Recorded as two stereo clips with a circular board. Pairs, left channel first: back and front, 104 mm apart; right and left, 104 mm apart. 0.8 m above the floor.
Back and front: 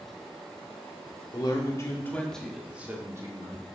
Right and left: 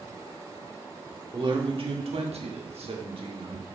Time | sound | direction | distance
1.3 | a man speaking | 135° left | 1.7 m